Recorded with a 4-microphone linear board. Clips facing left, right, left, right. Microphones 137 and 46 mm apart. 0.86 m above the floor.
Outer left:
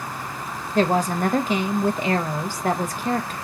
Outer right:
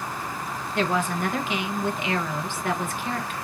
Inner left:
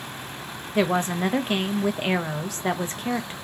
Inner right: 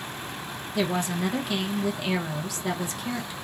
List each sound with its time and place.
0.8 s a woman speaking: 45° left (ahead or behind), 0.7 m